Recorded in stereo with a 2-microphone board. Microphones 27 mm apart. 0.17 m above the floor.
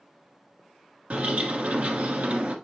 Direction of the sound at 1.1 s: 55° right (ahead or behind).